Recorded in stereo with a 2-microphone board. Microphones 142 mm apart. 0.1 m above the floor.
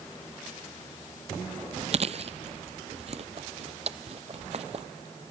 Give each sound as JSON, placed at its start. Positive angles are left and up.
{"t": 1.9, "sound": "chewing", "side_deg": -50, "distance_m": 0.5}